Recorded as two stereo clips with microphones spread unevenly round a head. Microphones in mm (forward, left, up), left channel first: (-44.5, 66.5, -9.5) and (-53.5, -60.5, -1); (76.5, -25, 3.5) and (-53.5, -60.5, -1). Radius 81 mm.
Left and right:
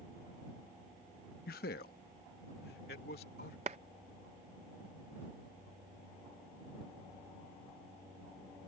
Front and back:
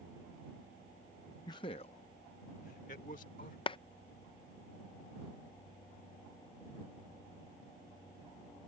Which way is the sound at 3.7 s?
40° right.